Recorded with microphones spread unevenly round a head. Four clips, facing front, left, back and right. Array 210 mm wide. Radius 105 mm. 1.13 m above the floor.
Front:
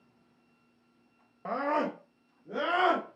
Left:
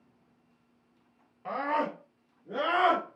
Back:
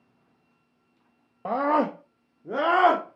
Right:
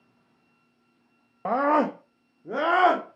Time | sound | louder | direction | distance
1.4 | a scream | right 8 dB, back 7 dB | 115° right | 1.0 m